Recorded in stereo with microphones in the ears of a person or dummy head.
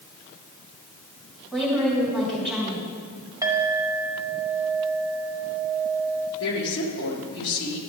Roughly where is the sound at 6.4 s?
Left.